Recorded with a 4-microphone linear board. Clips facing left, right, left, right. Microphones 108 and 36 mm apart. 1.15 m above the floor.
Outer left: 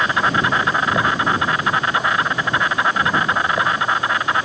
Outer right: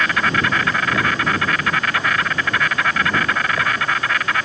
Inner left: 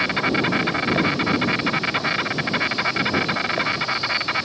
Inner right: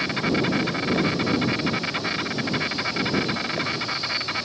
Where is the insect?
20° left (ahead or behind).